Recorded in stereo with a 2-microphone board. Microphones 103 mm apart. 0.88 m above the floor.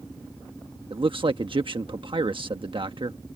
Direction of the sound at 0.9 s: 60° right (ahead or behind).